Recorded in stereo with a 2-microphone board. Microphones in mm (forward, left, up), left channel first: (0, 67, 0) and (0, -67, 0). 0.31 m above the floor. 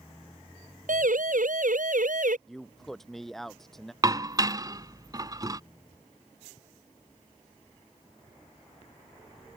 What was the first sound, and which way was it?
A siren, 85° right.